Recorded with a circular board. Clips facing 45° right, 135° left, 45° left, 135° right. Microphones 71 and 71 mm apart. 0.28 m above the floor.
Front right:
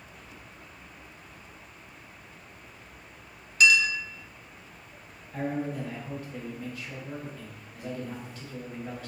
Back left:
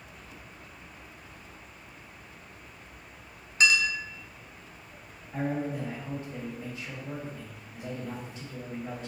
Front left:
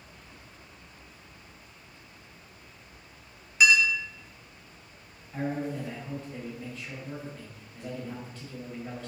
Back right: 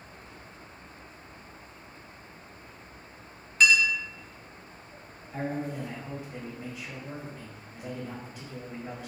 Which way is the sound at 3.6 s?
120° left.